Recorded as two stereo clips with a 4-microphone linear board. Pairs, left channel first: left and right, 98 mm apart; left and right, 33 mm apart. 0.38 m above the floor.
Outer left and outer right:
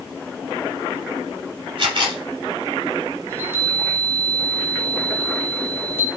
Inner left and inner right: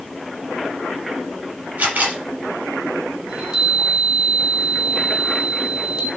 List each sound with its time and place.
1.8 s a camera shutter: 50° right (ahead or behind), 6.5 m
3.3 s a chime: 20° right (ahead or behind), 4 m